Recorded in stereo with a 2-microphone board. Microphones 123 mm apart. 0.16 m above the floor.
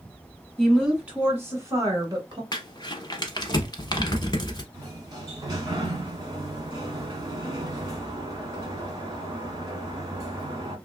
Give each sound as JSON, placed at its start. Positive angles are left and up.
{"t": 0.6, "sound": "a woman speaking", "side_deg": 0, "distance_m": 1.4}
{"t": 2.5, "sound": "crumpling", "side_deg": 35, "distance_m": 0.7}
{"t": 4.7, "sound": "a sliding door", "side_deg": -35, "distance_m": 1.2}